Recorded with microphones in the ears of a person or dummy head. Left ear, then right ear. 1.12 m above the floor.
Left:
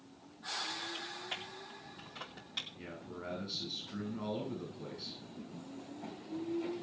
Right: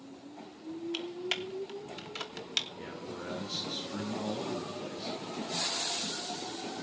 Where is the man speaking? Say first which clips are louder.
Right 5 dB; 15° right (ahead or behind), 9 m.